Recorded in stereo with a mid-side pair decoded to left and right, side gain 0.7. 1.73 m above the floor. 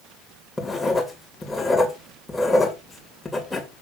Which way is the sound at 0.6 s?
10° left.